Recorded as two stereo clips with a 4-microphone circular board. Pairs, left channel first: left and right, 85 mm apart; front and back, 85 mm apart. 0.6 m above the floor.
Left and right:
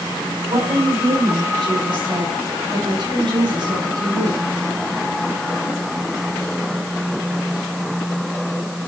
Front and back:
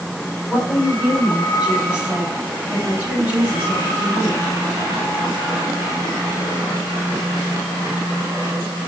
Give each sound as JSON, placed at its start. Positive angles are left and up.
{"t": 0.5, "sound": "a woman speaking", "azimuth_deg": -100, "distance_m": 4.0}